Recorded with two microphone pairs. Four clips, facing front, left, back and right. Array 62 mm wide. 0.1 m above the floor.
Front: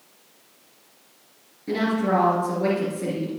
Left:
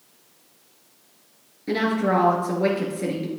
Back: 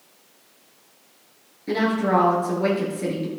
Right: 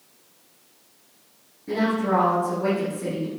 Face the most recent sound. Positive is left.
turn(degrees=110)